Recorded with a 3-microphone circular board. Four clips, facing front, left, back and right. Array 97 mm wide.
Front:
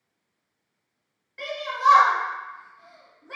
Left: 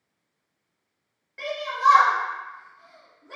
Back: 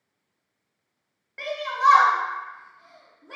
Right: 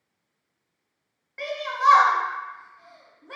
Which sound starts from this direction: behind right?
A shout, at 1.4 s.